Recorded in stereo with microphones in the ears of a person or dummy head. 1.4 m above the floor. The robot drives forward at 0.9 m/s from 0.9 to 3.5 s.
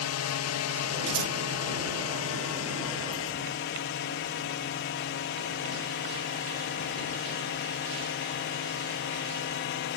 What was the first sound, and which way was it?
A drone, 70° left (ahead or behind).